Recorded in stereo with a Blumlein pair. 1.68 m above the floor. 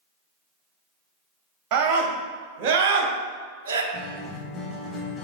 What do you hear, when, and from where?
1.7 s a scream: 35° right, 2.5 m; by 3.8 s 60° right, 1.3 m
3.9 s a guitar: 10° left, 1.7 m